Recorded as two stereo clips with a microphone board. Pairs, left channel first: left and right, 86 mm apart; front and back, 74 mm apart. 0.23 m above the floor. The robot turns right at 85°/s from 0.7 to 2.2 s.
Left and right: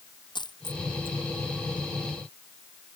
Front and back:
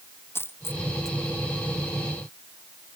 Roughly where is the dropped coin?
Ahead left.